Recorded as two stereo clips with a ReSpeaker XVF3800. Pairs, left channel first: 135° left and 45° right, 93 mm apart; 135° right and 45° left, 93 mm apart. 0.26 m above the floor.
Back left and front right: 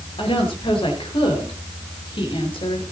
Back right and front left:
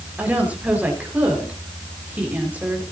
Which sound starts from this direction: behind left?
A woman speaking, at 0.2 s.